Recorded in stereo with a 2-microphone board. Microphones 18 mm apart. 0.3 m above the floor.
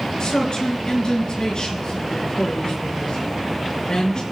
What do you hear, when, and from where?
0.2 s a man speaking: 50° left (ahead or behind), 5 m